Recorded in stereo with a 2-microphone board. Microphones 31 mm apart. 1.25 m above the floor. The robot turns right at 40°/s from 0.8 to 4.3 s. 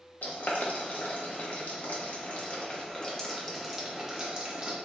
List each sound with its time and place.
0.2 s boiling: 60° left (ahead or behind), 1.1 m; by 4.8 s 25° right (ahead or behind), 1.1 m